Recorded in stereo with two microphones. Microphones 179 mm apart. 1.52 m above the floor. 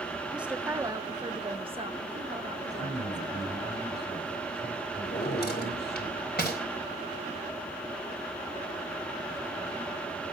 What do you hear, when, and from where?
0.3 s a woman speaking: 5° right (ahead or behind), 0.9 m; by 3.5 s 40° right (ahead or behind), 3 m
2.7 s a man speaking: 65° left (ahead or behind), 8.5 m
5.0 s a drawer: 65° left (ahead or behind), 3 m